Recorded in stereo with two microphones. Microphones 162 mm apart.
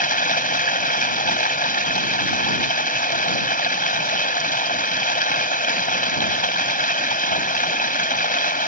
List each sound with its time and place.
0.0 s running water: 55° left (ahead or behind)